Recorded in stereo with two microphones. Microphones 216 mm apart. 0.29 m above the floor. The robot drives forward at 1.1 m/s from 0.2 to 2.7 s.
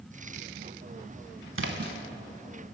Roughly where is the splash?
Right.